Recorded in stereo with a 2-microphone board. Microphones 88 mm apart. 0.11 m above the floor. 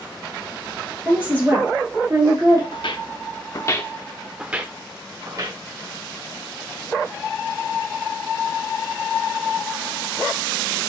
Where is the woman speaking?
20° right (ahead or behind), 2 m; by 2.6 s 45° right (ahead or behind), 2 m.